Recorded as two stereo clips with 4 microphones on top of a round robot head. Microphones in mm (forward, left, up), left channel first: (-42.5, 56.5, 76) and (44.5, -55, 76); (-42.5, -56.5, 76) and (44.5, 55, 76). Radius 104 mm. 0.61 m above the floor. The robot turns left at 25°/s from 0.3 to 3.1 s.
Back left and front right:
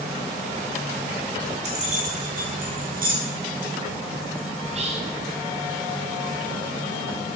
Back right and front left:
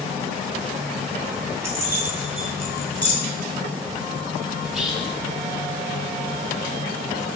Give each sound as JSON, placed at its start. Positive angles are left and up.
{"t": 1.6, "sound": "keys jangling", "azimuth_deg": -15, "distance_m": 1.0}
{"t": 4.6, "sound": "whispering", "azimuth_deg": -35, "distance_m": 0.9}